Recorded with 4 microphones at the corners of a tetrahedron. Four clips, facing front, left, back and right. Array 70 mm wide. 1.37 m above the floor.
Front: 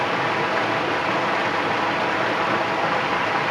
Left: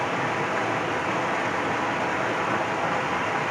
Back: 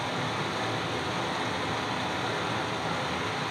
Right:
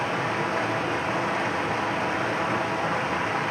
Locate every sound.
0.0 s running water: 10° left, 0.8 m